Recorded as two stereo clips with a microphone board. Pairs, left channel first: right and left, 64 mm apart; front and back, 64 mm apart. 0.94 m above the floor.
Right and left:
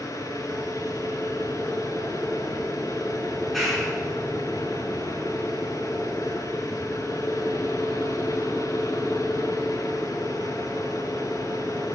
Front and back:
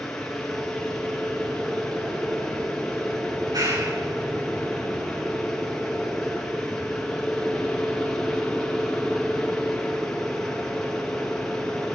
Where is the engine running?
85° right, 7.5 m.